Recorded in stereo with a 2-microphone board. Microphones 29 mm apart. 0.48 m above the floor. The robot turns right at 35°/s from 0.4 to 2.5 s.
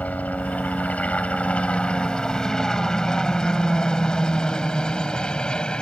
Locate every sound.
0.0 s a helicopter: 60° left (ahead or behind); by 5.8 s 30° left (ahead or behind)